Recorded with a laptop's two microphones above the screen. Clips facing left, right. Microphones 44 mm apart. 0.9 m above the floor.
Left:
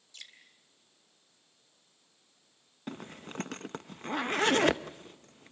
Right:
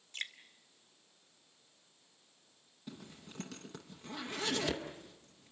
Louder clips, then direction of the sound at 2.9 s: Left 8 dB; 55° left (ahead or behind).